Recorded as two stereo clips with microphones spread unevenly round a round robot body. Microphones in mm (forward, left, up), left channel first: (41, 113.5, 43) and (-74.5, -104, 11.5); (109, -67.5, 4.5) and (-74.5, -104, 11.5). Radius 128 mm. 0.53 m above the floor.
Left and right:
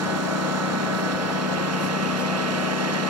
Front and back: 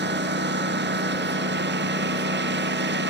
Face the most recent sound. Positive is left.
turn(degrees=-145)